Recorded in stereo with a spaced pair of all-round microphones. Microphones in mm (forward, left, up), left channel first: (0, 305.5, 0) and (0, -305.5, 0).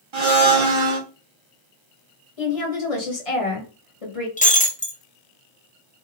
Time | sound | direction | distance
0.1 | a blender | 50° right (ahead or behind) | 0.6 m
2.4 | a woman speaking | 60° left (ahead or behind) | 1.3 m
4.4 | breaking glass | 15° left (ahead or behind) | 0.6 m